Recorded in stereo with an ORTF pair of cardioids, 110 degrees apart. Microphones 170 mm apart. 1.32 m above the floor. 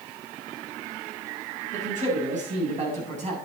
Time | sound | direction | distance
1.7 | a man speaking | 45° right | 9 m